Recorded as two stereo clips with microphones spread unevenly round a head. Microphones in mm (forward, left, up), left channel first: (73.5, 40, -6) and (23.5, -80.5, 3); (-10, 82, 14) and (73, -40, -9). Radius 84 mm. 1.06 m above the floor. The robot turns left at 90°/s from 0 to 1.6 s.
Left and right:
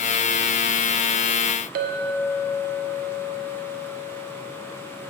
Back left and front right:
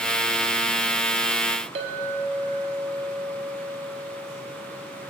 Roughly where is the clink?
Right.